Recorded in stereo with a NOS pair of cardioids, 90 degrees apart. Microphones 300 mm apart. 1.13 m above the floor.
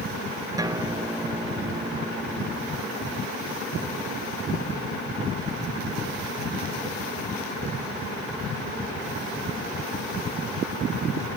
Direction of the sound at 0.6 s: 10° right.